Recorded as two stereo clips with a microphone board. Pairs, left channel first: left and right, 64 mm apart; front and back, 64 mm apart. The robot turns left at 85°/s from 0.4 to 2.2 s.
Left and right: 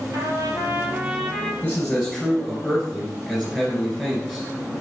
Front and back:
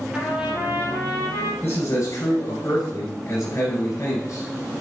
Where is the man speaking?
50° left, 2.5 m; by 4.5 s straight ahead, 2.5 m.